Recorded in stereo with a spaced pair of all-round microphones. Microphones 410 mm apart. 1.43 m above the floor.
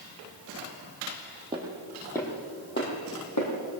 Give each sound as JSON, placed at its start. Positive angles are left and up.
{"t": 1.5, "sound": "footsteps", "side_deg": -10, "distance_m": 2.5}